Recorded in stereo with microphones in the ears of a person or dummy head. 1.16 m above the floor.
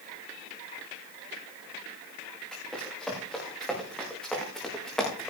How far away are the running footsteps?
About 6.5 m.